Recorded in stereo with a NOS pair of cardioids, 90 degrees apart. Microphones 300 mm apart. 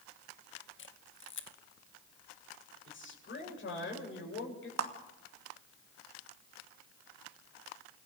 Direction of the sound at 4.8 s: 60° right.